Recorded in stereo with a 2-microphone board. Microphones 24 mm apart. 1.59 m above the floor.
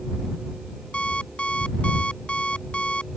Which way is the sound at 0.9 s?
50° left (ahead or behind).